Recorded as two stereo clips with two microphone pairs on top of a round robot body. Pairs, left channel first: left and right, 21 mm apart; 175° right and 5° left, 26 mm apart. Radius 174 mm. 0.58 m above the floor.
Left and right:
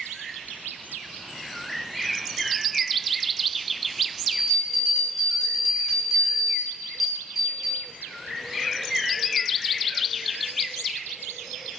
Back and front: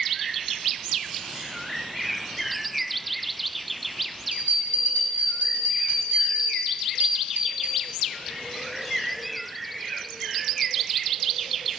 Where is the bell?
10° right, 5.5 m.